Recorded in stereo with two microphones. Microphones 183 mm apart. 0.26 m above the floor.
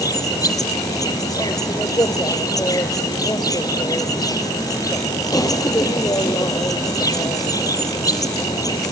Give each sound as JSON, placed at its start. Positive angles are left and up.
{"t": 0.0, "sound": "an insect", "side_deg": 20, "distance_m": 0.9}